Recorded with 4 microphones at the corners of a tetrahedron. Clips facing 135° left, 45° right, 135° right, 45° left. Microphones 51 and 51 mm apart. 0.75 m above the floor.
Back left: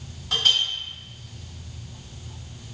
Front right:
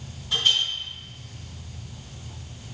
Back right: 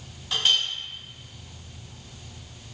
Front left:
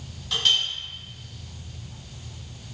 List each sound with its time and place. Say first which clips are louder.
0.3 s a clink: back left 1 dB, even; 150° left, 1.2 m